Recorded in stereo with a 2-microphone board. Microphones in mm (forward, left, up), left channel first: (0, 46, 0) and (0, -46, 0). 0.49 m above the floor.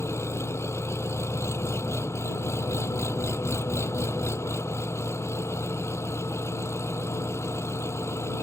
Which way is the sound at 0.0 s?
30° left (ahead or behind).